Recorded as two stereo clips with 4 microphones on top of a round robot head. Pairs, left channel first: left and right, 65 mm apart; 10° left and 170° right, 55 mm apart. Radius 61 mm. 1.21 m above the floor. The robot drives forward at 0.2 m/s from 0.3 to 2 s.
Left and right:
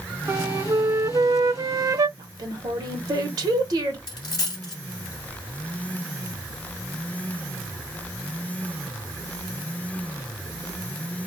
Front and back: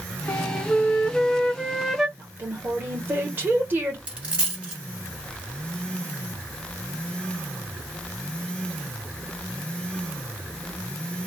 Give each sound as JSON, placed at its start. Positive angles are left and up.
{"t": 0.3, "sound": "a flute", "azimuth_deg": -45, "distance_m": 0.6}
{"t": 2.2, "sound": "a woman speaking", "azimuth_deg": -110, "distance_m": 1.0}
{"t": 4.1, "sound": "a dropped coin", "azimuth_deg": 130, "distance_m": 0.7}